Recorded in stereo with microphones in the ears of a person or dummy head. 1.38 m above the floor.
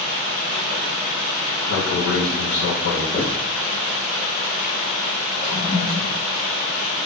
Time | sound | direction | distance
1.7 | a man speaking | 65° left (ahead or behind) | 0.7 m
3.1 | writing | 35° left (ahead or behind) | 1.2 m
5.4 | a toilet flushing | 40° right (ahead or behind) | 1.2 m